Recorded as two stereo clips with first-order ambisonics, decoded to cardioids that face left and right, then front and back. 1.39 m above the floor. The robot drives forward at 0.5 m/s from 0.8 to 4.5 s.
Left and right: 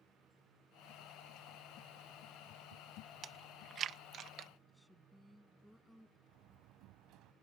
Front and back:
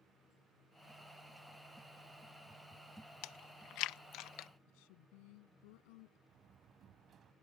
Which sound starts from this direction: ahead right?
Chewing, at 3.2 s.